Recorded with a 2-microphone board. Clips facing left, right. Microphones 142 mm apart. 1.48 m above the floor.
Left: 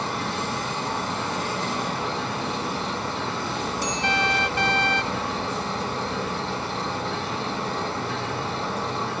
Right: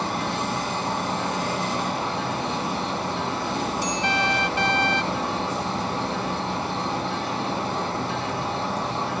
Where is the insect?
45° right (ahead or behind), 4.5 m.